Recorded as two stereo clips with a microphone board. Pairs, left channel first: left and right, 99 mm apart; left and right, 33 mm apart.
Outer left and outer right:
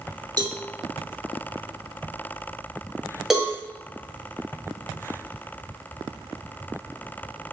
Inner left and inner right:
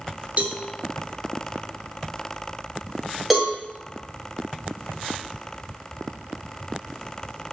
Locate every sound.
0.4 s a cowbell: 45° right (ahead or behind), 1.4 m
3.3 s a cowbell: 5° right (ahead or behind), 2.5 m